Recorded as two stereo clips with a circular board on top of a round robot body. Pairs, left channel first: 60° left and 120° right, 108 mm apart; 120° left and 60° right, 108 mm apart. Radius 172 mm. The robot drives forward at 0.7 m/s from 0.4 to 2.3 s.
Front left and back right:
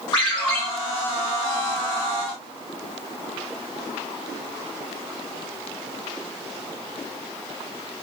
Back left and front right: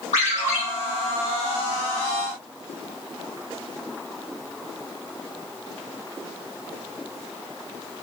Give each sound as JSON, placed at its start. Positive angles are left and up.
{"t": 0.1, "sound": "a ringtone", "azimuth_deg": 110, "distance_m": 1.4}